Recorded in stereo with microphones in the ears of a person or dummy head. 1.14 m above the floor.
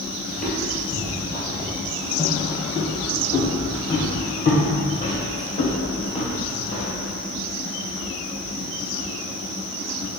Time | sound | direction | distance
0.3 | footsteps | centre (ahead or behind) | 1.5 m